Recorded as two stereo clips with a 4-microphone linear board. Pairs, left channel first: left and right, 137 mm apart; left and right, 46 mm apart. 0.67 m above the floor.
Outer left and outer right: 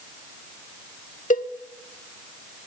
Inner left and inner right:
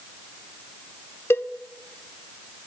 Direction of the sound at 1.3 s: 75° left (ahead or behind).